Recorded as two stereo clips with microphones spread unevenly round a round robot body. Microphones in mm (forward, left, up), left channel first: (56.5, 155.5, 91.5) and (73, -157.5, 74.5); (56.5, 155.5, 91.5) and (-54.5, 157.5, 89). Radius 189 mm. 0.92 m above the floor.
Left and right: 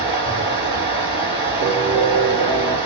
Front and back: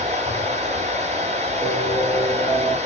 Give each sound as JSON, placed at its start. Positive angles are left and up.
{"t": 0.0, "sound": "running water", "azimuth_deg": -170, "distance_m": 1.6}
{"t": 1.6, "sound": "a piano", "azimuth_deg": -135, "distance_m": 1.2}